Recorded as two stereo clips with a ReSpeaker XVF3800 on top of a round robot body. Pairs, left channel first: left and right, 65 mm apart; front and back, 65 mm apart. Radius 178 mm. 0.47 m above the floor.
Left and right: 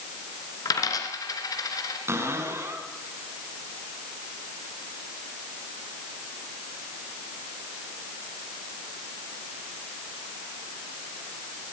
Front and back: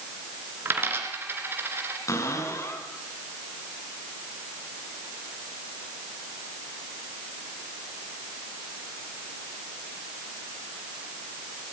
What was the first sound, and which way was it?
A dropped coin, 120° left.